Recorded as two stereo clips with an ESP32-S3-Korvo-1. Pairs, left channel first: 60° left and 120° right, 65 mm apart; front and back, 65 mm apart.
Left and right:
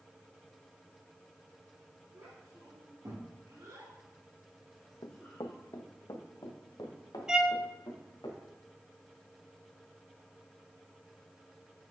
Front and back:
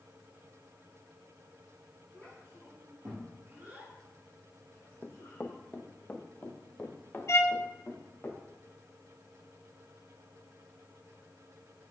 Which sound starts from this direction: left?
Running footsteps, at 5.0 s.